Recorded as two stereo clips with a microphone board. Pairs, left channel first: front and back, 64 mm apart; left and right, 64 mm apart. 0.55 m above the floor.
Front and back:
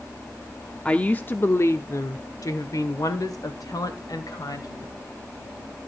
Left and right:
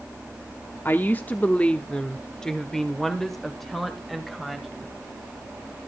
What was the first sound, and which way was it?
A woman speaking, 65° left.